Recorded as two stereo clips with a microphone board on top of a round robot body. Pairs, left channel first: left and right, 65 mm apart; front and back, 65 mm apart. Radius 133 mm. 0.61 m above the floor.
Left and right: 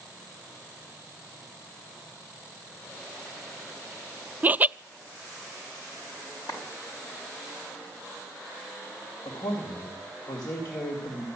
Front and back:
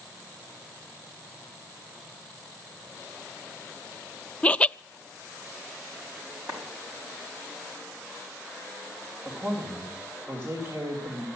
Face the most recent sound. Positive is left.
turn(degrees=120)